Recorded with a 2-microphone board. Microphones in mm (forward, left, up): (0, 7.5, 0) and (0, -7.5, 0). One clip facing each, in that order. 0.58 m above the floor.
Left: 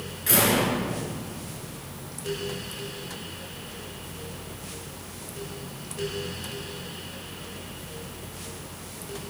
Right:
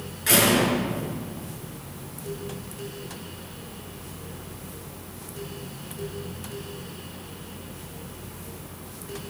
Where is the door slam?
15° right (ahead or behind), 5.5 m.